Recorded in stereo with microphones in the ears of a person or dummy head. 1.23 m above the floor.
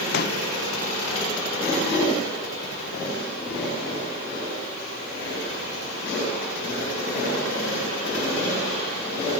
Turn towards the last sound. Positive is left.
turn(degrees=50)  # may be behind; listen again after turning